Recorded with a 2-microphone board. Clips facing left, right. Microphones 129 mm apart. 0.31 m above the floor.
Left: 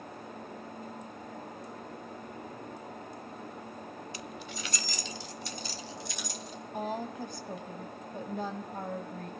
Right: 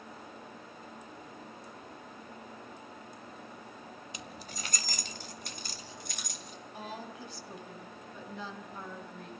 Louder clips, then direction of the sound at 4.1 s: Left 4 dB; 20° right (ahead or behind).